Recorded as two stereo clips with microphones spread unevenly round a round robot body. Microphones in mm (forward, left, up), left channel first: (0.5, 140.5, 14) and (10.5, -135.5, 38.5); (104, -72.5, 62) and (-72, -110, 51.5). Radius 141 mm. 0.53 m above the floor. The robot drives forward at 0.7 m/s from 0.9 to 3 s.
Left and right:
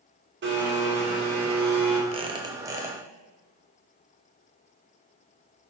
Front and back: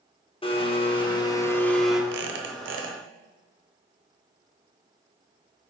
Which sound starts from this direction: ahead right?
A blender, at 0.4 s.